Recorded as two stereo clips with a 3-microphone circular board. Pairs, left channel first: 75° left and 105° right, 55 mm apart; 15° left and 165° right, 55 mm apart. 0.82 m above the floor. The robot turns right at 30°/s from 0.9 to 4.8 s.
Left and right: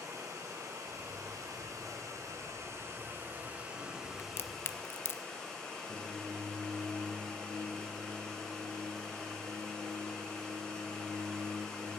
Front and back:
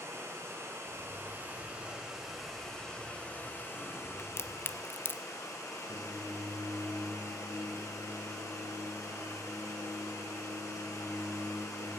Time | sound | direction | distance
0.0 | running water | 120° right | 3 m
4.2 | a crack | 35° left | 0.6 m
5.9 | singing | 160° left | 6.5 m